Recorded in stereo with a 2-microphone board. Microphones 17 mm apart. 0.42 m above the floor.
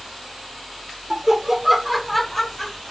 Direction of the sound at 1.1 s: 30° right (ahead or behind).